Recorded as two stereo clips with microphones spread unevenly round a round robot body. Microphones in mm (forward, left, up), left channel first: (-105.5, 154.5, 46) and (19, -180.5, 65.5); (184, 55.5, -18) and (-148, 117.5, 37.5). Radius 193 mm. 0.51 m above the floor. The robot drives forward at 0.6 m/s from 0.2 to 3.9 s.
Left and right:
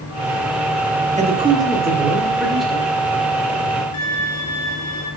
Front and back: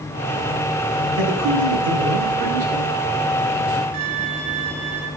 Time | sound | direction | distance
1.2 | a man speaking | 140° right | 1.0 m
3.9 | a violin | 155° left | 1.8 m